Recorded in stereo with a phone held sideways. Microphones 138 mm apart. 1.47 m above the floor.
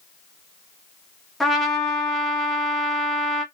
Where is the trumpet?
Centre (ahead or behind), 0.8 m.